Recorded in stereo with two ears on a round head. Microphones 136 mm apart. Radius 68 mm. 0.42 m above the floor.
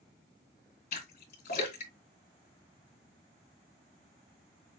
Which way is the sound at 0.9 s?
60° left (ahead or behind).